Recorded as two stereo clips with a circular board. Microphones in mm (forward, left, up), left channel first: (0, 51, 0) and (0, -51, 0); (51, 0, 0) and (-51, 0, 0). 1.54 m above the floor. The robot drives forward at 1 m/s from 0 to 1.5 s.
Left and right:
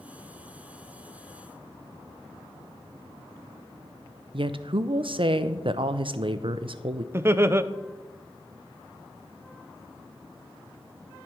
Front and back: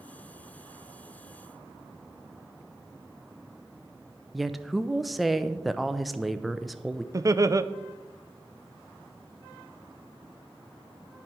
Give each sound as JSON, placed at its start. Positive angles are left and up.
{"t": 4.3, "sound": "a woman speaking", "azimuth_deg": -90, "distance_m": 0.6}
{"t": 7.1, "sound": "laughter", "azimuth_deg": -140, "distance_m": 0.5}